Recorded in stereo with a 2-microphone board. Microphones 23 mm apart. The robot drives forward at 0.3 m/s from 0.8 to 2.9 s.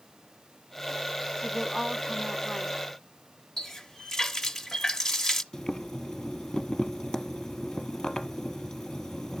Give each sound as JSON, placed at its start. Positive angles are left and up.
{"t": 1.4, "sound": "a woman speaking", "side_deg": -25, "distance_m": 1.1}
{"t": 3.6, "sound": "a running tap", "side_deg": 20, "distance_m": 0.9}
{"t": 5.5, "sound": "boiling", "side_deg": 30, "distance_m": 1.4}